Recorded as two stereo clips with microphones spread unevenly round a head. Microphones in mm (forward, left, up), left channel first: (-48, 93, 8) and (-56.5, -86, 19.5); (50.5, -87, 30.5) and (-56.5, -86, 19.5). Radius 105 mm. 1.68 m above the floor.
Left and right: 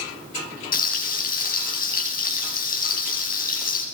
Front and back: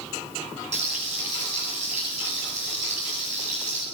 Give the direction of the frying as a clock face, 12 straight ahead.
8 o'clock.